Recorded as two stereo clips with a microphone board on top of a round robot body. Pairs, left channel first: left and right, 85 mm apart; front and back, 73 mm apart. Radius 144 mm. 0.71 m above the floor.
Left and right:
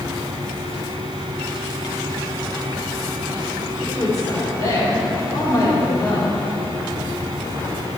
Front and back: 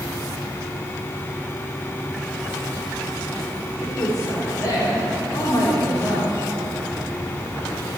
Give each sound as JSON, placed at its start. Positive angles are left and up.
{"t": 3.8, "sound": "a woman speaking", "azimuth_deg": 40, "distance_m": 4.5}